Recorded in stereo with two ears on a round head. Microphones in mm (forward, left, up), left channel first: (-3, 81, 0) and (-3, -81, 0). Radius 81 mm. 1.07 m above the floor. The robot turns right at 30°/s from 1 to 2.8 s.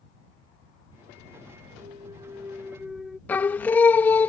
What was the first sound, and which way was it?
A clunk, 35° right.